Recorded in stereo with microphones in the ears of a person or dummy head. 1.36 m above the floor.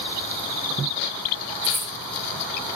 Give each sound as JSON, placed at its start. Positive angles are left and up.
{"t": 1.6, "sound": "a dropped coin", "side_deg": -10, "distance_m": 2.5}